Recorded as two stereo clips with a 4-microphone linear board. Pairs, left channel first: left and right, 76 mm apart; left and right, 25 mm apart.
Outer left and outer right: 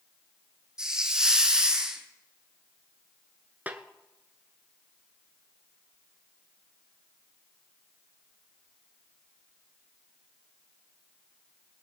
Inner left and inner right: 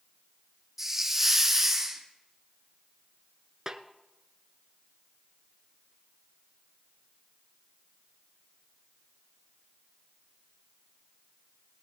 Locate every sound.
0.8 s a hiss: 10° right (ahead or behind), 1.8 m
3.7 s a snare drum: 25° right (ahead or behind), 0.9 m